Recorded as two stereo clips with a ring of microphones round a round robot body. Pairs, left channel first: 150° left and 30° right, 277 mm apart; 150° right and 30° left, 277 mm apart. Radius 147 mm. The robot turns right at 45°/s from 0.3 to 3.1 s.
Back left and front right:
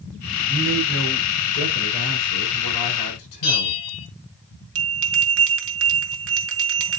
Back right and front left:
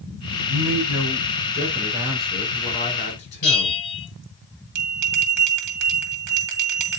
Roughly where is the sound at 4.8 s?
Ahead.